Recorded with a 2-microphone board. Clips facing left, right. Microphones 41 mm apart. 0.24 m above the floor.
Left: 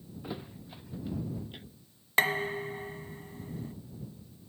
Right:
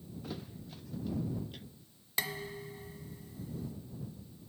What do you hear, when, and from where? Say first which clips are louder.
0.2 s a thud: left 4 dB; 25° left (ahead or behind)
2.2 s dishes clattering: left 10 dB; 45° left (ahead or behind)